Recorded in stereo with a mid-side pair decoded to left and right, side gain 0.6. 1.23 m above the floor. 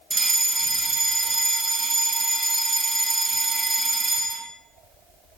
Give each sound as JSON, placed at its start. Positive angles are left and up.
{"t": 0.1, "sound": "a fire alarm", "azimuth_deg": -30, "distance_m": 3.0}